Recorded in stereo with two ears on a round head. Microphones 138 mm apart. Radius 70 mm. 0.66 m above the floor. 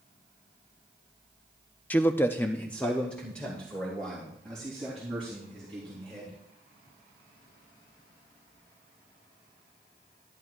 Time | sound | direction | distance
1.9 | a man speaking | 10° left (ahead or behind) | 0.6 m